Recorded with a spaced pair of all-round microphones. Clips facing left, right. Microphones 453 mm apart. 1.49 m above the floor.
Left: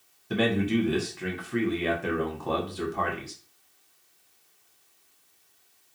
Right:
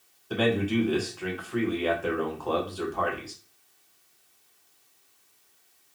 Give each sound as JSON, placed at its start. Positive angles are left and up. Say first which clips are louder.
{"t": 0.3, "sound": "a man speaking", "louder": "even", "side_deg": 40, "distance_m": 0.8}